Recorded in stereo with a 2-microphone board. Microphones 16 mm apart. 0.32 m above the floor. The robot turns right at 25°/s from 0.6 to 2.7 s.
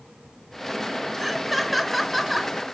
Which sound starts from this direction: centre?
Laughter, at 1.2 s.